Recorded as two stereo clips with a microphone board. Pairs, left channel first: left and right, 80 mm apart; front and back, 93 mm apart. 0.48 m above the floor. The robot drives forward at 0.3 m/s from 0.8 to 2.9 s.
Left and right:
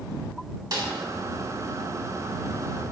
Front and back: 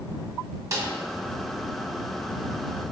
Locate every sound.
0.7 s a snare drum: 125° right, 0.9 m